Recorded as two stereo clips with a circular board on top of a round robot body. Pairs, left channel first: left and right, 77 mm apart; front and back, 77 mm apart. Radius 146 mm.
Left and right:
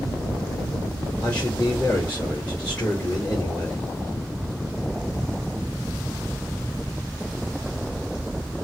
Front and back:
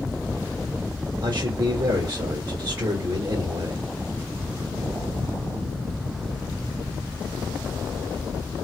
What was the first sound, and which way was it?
A man speaking, 165° left.